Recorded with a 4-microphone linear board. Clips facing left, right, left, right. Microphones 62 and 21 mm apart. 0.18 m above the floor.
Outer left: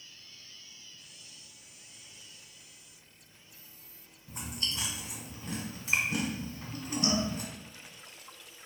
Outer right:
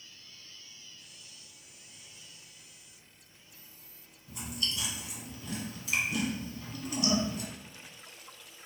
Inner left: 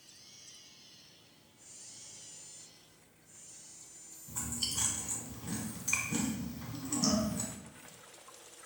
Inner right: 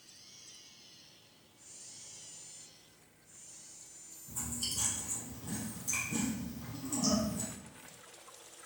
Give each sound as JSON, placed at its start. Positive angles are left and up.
{"t": 4.3, "sound": "chewing", "side_deg": 35, "distance_m": 0.6}